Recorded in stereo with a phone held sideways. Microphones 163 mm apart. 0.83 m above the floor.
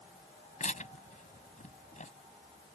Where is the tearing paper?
50° left (ahead or behind).